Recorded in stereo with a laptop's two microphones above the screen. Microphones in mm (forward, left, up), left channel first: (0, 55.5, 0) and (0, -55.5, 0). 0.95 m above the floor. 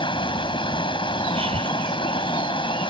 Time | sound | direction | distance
0.0 | running water | 50° left (ahead or behind) | ?
1.4 | breathing | 60° right (ahead or behind) | ?